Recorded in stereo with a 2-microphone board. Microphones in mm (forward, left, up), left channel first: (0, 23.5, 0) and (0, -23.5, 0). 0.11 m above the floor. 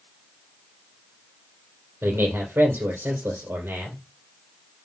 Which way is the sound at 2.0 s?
60° right (ahead or behind).